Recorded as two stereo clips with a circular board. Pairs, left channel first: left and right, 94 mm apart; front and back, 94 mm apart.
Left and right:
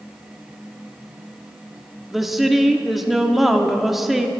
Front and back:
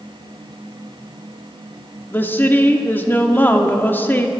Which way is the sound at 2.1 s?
5° right.